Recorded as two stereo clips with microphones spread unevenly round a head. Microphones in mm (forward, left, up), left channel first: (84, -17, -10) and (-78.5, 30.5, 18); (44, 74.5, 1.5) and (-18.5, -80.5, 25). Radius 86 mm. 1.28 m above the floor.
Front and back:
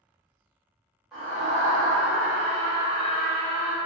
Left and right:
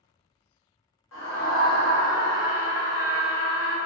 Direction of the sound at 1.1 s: 75° left.